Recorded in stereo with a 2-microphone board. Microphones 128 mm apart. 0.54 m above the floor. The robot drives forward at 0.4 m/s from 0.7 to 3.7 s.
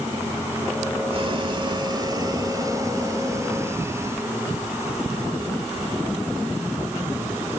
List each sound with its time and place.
1.1 s boiling: 45° right (ahead or behind); by 4.3 s 25° right (ahead or behind)